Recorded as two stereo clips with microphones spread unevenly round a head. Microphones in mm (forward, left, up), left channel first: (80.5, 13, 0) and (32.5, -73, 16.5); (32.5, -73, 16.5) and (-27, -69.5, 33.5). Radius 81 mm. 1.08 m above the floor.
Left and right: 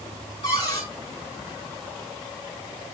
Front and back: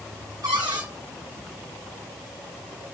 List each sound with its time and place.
0.4 s a cupboard door: 125° left, 5 m